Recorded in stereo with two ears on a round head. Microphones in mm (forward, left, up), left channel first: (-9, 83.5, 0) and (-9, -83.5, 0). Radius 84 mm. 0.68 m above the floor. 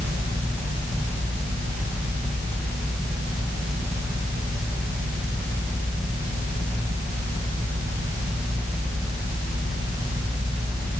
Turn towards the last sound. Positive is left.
No sound to turn to.